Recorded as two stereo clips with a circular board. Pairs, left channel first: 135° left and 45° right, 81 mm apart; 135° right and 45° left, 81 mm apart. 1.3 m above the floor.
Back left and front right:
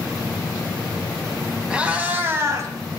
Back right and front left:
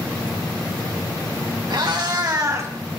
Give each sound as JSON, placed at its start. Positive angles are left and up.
{"t": 1.7, "sound": "a cat meowing", "azimuth_deg": 30, "distance_m": 2.5}